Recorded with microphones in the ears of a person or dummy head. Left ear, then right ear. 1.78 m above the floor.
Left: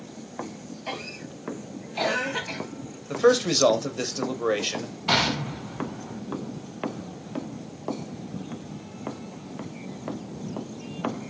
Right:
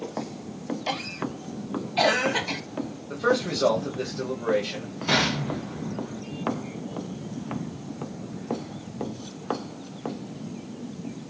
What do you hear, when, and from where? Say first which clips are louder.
0.9 s a cough: right 3 dB; 15° right (ahead or behind), 0.8 m
3.1 s a man speaking: left 5 dB; 70° left (ahead or behind), 1.1 m
5.1 s an explosion: even; 15° left (ahead or behind), 2.5 m